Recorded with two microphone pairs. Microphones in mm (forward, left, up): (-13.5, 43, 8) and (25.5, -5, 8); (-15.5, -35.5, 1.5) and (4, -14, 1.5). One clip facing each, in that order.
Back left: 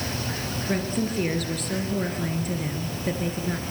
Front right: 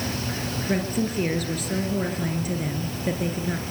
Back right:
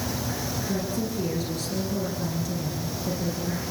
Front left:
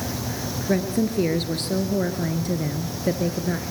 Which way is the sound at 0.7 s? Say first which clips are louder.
Front right 1 dB, front left 9 dB; 35° left.